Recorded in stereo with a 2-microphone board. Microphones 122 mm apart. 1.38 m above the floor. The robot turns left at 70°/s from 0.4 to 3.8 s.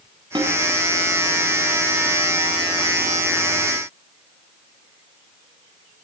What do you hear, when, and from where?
0.3 s a snare drum: 40° right (ahead or behind), 8.5 m; by 0.6 s 50° right (ahead or behind), 8.5 m